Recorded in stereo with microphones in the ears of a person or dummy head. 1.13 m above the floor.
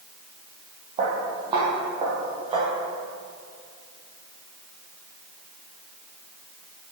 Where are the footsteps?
15° right (ahead or behind), 1.3 m; by 2.7 s 20° right (ahead or behind), 2.5 m.